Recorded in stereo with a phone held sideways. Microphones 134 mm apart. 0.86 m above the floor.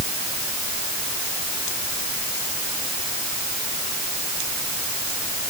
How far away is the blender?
No blender in this recording.